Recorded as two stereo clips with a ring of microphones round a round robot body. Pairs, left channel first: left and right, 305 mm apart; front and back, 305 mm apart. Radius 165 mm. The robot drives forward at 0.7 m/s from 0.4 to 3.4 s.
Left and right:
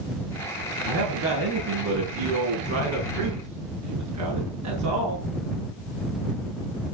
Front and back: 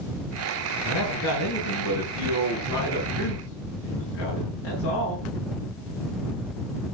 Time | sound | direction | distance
0.8 | a man speaking | 45° right | 8.5 m